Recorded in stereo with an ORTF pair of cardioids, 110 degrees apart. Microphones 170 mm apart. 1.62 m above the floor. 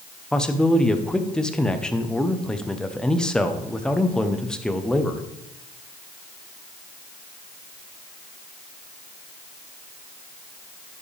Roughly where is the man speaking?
Ahead.